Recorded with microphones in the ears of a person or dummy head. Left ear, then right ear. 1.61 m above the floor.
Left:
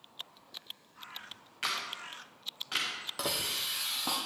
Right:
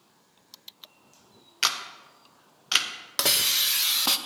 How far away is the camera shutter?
About 0.9 m.